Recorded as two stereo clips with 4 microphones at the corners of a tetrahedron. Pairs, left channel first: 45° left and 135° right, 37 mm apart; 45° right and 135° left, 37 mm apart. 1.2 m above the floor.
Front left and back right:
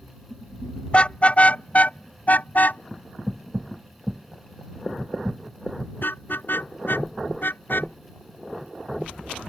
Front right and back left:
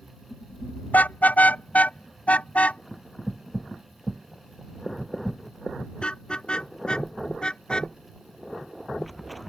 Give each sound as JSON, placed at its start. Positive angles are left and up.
{"t": 0.9, "sound": "a car horn", "azimuth_deg": -10}